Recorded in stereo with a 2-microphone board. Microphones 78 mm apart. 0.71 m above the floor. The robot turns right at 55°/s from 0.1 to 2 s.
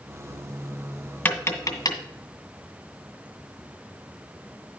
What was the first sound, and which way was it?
Tapping, 25° left (ahead or behind).